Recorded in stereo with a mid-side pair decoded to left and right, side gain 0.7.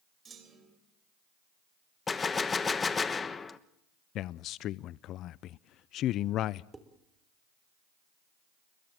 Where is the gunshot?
20° left, 1.2 m.